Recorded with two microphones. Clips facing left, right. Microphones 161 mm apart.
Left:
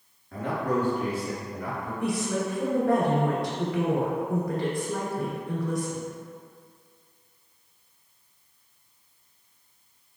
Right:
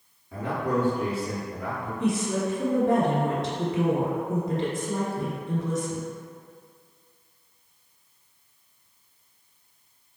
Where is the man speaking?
5° right (ahead or behind), 1.5 m; by 1.9 s 35° right (ahead or behind), 3 m.